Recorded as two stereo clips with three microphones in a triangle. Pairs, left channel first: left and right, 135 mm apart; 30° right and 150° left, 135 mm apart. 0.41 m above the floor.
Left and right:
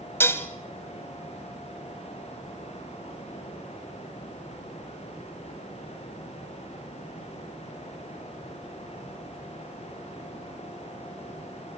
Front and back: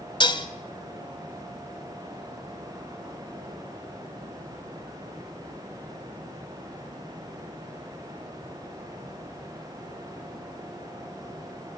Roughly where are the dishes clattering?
Ahead.